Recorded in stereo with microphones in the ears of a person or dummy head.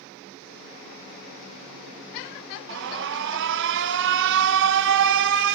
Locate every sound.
2.7 s an alarm: 65° right (ahead or behind), 0.8 m